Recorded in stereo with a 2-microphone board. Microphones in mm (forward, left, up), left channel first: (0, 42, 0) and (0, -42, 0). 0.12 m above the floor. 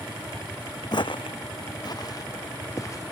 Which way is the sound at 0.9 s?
55° left (ahead or behind).